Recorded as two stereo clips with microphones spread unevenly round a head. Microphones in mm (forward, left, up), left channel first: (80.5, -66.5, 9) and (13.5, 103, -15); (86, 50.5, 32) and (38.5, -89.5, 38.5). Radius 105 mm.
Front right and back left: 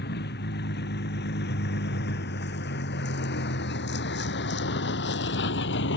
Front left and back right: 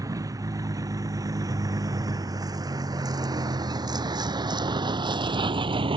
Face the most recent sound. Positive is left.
turn(degrees=-55)